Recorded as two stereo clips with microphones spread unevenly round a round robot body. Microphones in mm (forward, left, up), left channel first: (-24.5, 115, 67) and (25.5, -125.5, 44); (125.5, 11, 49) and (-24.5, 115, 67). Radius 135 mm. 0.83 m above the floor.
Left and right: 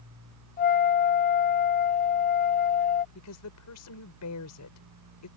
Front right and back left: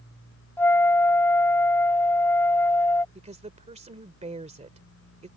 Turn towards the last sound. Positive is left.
turn(degrees=95)